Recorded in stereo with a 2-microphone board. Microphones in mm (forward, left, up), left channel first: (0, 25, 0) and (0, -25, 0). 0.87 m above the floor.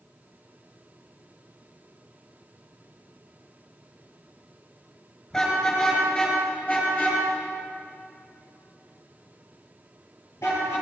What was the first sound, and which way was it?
A car horn, 15° left (ahead or behind).